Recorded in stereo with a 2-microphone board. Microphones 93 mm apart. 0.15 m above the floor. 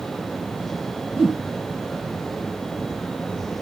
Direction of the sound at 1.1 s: 5° right (ahead or behind).